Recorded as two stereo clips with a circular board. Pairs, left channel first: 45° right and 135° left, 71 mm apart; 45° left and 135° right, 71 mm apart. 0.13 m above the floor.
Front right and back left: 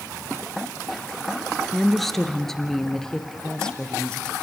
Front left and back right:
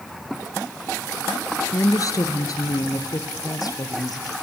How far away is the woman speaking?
About 2 m.